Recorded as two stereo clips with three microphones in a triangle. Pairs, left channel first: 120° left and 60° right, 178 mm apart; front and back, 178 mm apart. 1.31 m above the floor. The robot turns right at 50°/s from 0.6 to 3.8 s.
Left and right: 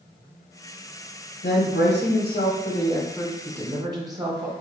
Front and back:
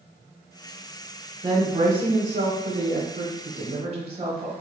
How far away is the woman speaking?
About 0.7 m.